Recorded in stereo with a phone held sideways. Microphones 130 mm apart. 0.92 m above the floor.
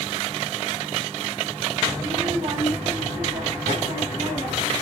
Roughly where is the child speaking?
Right.